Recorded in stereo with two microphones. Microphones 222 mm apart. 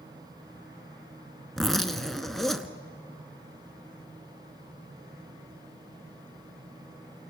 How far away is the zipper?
About 0.9 m.